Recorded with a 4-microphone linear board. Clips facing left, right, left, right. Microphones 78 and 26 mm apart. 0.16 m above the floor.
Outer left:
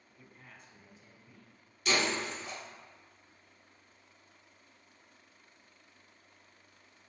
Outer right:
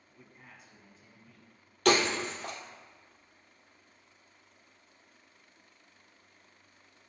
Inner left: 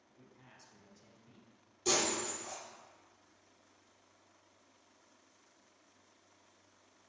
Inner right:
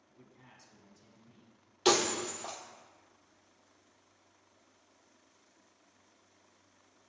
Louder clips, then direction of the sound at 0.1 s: Outer right 1 dB, inner right 2 dB; 20° right (ahead or behind).